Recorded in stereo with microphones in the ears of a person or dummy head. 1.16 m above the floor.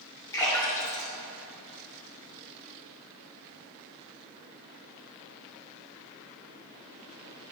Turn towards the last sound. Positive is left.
turn(degrees=15)  # may be behind; listen again after turning